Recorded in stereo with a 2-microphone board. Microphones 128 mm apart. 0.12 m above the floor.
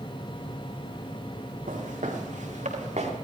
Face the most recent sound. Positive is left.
turn(degrees=-65)  # may be behind; listen again after turning